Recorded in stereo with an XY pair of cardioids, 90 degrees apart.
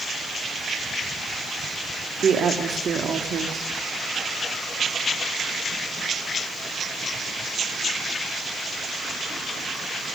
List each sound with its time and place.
2.2 s a woman speaking: 50° right, 1.7 m